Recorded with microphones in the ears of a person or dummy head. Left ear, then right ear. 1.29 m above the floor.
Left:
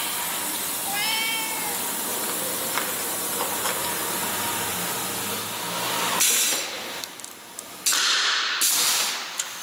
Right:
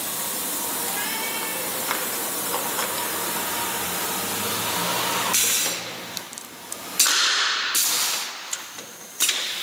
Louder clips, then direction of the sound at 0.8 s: Left 6 dB; 50° left (ahead or behind).